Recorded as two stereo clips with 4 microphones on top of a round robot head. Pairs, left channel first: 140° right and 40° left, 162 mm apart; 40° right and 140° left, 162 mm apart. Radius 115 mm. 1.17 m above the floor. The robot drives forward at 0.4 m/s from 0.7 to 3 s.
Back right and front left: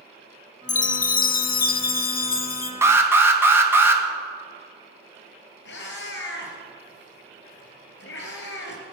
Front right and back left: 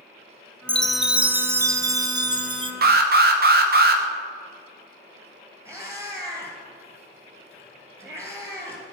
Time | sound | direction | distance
0.7 | a chime | 125° right | 0.5 m
2.8 | an alarm | 115° left | 1.7 m
5.7 | a cat meowing | 150° right | 3 m